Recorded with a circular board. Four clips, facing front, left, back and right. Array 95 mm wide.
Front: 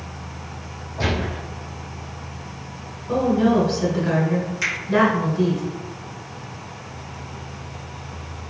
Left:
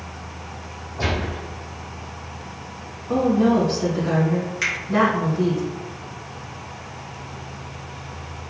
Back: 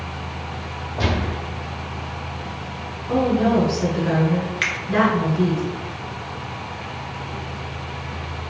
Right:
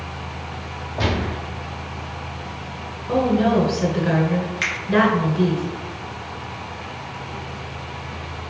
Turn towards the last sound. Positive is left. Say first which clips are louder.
# right 1 dB, back 2 dB
turn(degrees=-165)